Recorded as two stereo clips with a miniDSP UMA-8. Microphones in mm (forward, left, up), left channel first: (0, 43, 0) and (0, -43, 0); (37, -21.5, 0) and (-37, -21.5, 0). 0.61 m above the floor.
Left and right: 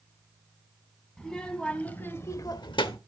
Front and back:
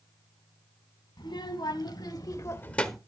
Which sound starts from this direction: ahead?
A child speaking, at 1.2 s.